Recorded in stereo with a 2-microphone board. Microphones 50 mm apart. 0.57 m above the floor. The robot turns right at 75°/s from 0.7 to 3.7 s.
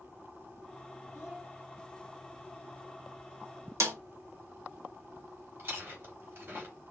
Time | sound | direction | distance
1.1 | a child speaking | 55° left (ahead or behind) | 2.5 m
3.8 | a snare drum | 70° right (ahead or behind) | 0.8 m
5.6 | chewing | 50° right (ahead or behind) | 2.5 m